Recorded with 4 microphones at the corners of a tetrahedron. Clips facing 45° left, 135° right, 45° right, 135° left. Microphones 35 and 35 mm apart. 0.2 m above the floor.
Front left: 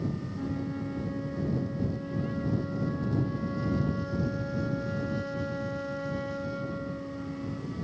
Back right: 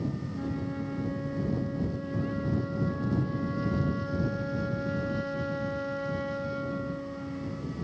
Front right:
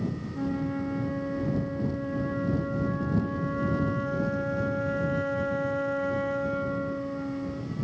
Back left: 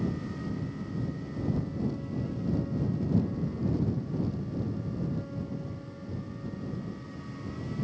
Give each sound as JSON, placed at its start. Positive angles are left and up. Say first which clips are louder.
{"t": 0.3, "sound": "a flute", "louder": "even, front right 7 dB", "azimuth_deg": -55}